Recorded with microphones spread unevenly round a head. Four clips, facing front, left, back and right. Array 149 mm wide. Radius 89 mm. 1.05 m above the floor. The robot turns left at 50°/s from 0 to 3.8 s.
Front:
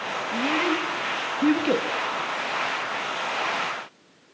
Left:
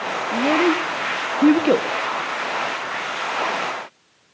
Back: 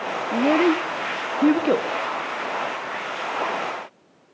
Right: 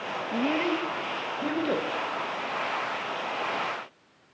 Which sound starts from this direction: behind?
A child speaking, at 0.3 s.